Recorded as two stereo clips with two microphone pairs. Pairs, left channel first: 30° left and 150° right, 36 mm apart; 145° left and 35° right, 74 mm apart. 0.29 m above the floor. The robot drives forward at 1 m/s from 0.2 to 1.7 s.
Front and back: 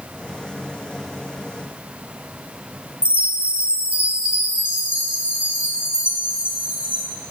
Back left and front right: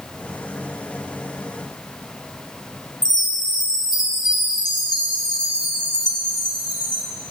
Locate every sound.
3.0 s a chime: 160° left, 3.5 m